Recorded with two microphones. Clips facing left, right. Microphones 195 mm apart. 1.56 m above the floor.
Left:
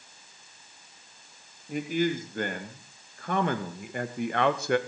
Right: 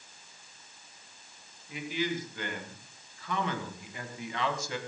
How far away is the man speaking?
About 3 m.